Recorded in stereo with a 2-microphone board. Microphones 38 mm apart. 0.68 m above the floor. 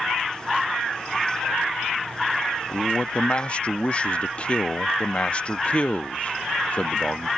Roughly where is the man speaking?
Left.